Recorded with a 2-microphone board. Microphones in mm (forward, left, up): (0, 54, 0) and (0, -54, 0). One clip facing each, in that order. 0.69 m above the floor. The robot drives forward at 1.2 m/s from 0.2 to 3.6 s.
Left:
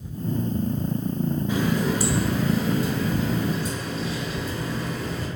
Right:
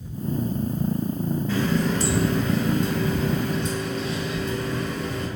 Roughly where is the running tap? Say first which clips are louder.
Right 1 dB; centre.